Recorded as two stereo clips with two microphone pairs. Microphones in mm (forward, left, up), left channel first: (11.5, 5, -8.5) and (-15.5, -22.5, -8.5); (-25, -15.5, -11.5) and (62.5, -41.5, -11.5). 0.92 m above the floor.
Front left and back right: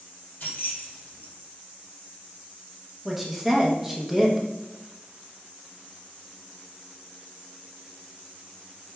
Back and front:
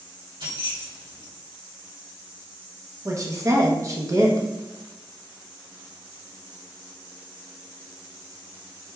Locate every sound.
0.4 s keys jangling: 10° left, 2.5 m
3.0 s a woman speaking: 50° right, 0.8 m